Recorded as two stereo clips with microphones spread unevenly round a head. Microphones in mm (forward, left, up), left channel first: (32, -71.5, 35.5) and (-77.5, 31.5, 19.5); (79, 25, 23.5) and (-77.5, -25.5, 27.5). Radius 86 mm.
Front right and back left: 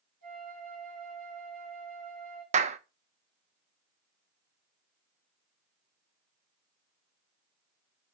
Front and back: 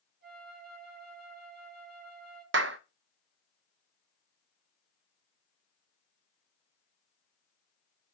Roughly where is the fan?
I don't hear a fan.